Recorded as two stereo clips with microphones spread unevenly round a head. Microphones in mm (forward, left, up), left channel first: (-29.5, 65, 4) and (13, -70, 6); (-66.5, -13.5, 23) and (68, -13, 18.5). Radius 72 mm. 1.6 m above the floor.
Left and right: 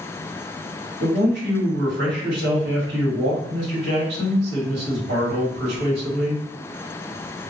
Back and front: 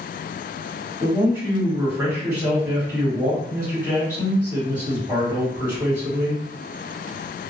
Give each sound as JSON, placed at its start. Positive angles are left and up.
{"t": 1.0, "sound": "a man speaking", "azimuth_deg": -75, "distance_m": 1.3}